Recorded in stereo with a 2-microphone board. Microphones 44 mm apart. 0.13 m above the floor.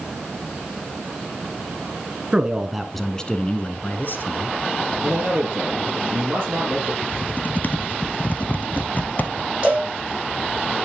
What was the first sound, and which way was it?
A man speaking, 25° right (ahead or behind).